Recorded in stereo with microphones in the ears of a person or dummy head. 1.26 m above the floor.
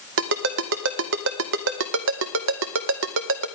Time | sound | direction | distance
0.2 | a ringtone | 65° right (ahead or behind) | 0.7 m